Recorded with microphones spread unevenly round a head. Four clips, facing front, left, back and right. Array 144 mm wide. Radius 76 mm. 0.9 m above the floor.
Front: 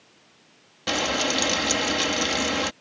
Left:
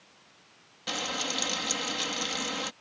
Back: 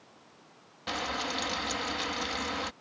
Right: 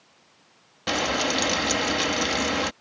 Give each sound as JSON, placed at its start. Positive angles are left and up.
{"t": 0.9, "sound": "frying", "azimuth_deg": -35}